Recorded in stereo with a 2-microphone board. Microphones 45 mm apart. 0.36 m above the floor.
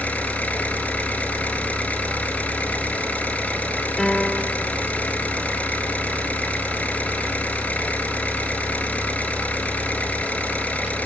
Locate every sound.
0.0 s an engine running: 30° left (ahead or behind), 4.5 m
4.0 s a piano: 5° left (ahead or behind), 1.3 m